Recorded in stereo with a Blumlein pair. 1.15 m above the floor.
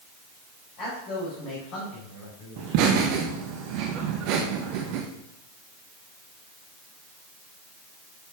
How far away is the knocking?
No knocking in this recording.